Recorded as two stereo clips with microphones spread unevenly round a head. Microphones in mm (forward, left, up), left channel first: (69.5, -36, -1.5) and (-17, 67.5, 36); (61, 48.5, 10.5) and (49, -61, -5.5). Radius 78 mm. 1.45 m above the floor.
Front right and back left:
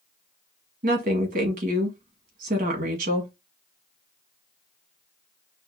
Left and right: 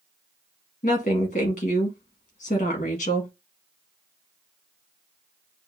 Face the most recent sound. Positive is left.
turn(degrees=115)